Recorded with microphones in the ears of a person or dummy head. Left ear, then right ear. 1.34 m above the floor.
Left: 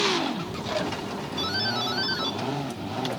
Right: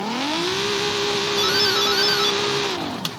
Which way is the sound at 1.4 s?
20° right (ahead or behind).